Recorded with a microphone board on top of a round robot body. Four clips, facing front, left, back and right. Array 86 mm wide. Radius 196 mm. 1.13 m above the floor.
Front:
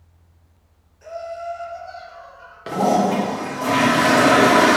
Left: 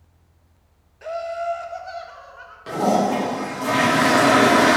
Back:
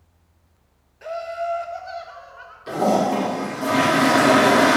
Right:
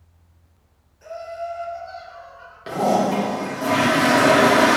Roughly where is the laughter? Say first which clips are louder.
Left 5 dB, back 3 dB; behind left.